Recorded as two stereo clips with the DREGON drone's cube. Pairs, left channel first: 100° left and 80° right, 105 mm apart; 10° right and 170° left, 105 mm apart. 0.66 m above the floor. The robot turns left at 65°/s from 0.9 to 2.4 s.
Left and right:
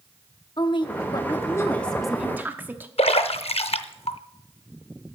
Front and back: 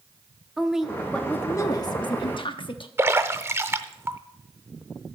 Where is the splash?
105° left, 0.5 m.